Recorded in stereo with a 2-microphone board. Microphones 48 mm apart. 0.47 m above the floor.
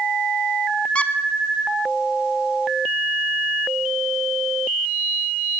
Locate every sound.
0.9 s a squeak: 25° left (ahead or behind), 0.7 m